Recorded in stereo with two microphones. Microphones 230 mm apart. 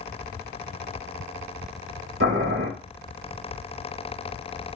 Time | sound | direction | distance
2.2 | boiling | 65° right (ahead or behind) | 1.5 m